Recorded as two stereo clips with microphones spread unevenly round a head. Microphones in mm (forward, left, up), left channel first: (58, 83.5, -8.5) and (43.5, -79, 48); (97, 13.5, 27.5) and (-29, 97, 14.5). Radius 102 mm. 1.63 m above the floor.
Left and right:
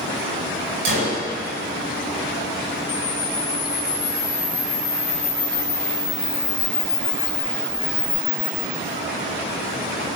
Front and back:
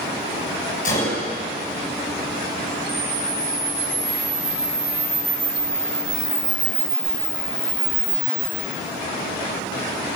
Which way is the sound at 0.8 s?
85° right.